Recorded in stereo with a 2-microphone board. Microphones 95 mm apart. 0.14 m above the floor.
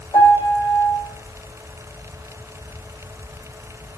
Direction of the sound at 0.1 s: 80° left.